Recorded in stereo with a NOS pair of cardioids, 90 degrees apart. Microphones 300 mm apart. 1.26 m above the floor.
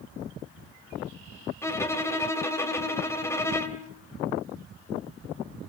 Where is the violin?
10° left, 2.5 m.